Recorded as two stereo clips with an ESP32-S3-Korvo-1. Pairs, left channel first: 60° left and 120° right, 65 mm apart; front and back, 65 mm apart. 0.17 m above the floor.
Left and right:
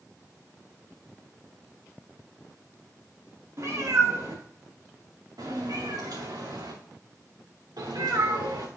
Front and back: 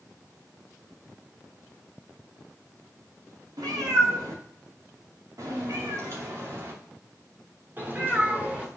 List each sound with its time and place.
3.6 s a cat meowing: 160° right, 3 m; by 8.7 s 105° right, 2.5 m